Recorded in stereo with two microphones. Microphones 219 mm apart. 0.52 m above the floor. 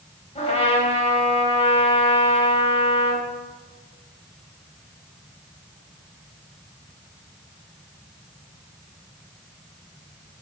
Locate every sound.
0.3 s a trumpet: 30° left (ahead or behind), 3.5 m